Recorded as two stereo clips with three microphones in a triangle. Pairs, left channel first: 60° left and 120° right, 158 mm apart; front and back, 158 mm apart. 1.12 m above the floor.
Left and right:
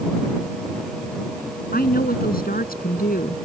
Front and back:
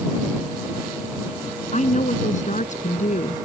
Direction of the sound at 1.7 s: 40° left.